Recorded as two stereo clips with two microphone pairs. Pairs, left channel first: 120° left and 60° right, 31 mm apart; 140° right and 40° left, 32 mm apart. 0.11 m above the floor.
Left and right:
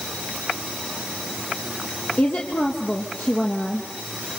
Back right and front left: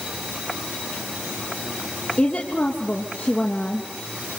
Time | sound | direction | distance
2.2 | a woman speaking | 155° left | 3 m